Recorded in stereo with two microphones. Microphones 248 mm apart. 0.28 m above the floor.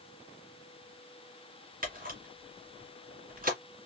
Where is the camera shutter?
35° right (ahead or behind), 1.8 m.